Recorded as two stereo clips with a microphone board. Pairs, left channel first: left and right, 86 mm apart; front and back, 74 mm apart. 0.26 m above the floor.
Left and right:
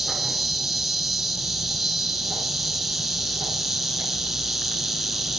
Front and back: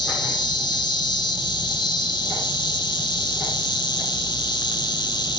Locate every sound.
0.0 s an insect: straight ahead, 0.7 m